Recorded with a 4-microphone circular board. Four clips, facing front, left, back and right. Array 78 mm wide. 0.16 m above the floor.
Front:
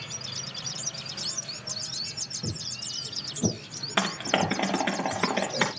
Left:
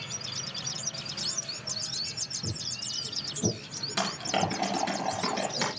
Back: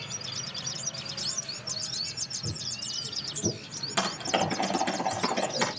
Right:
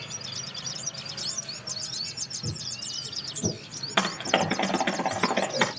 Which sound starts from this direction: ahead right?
Typing on a keyboard, at 4.0 s.